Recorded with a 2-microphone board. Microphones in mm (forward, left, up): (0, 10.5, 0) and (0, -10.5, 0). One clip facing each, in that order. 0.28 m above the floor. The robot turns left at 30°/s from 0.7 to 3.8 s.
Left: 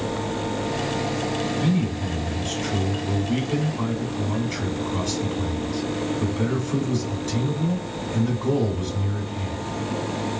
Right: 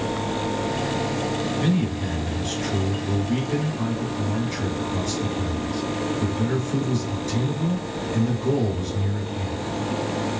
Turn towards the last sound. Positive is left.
turn(degrees=145)